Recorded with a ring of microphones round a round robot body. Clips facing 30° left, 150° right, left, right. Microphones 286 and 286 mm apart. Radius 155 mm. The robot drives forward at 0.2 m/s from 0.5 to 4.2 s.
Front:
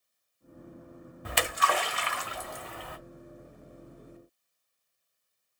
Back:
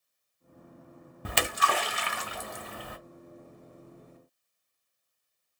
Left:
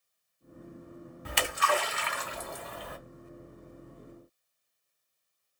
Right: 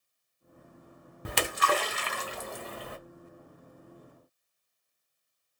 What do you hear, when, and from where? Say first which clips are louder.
1.2 s a splash: even, right 2 dB; 140° right, 0.7 m; by 3.0 s 150° right, 1.0 m